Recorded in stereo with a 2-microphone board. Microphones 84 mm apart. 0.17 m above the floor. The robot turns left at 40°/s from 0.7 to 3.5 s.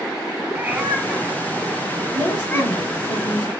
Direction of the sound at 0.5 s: 20° right (ahead or behind).